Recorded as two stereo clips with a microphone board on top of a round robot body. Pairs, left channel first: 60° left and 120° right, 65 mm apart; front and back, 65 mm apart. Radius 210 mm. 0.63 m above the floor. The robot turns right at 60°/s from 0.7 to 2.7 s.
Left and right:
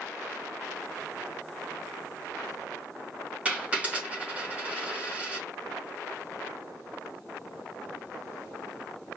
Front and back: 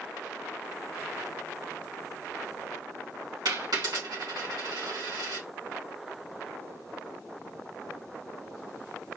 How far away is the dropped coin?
About 2.5 m.